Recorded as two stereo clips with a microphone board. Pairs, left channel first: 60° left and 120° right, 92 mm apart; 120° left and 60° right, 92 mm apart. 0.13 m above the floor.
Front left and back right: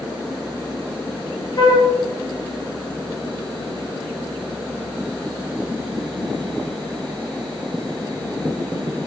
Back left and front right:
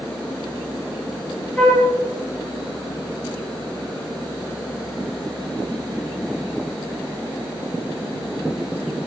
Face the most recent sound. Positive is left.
turn(degrees=40)